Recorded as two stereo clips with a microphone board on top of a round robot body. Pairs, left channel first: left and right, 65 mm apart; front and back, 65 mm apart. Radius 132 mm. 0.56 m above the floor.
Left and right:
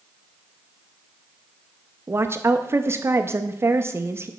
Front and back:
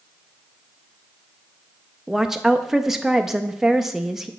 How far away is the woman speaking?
About 0.6 m.